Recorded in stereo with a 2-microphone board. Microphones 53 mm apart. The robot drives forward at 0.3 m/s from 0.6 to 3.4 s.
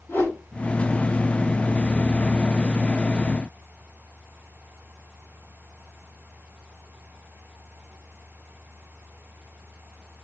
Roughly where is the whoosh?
Left.